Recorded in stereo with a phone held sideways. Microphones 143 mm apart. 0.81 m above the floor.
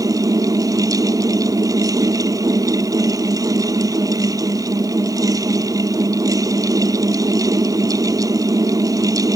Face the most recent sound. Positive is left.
turn(degrees=-25)  # may be behind; listen again after turning